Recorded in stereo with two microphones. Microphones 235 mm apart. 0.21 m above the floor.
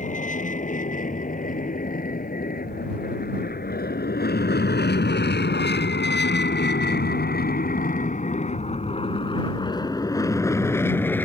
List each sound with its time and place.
0.0 s an aircraft: 35° left (ahead or behind); by 11.3 s 5° left (ahead or behind)